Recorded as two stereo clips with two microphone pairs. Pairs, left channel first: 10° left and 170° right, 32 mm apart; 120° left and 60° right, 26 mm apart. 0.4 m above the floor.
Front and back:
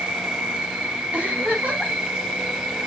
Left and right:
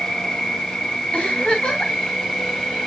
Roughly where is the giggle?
Behind.